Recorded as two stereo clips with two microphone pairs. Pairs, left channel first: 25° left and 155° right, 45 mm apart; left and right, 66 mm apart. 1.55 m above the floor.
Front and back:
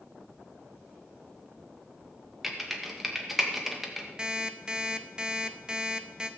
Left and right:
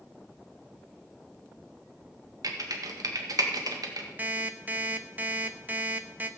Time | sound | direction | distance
2.4 | typing on a keyboard | 70° right | 1.7 m
4.2 | an alarm clock | 100° right | 0.9 m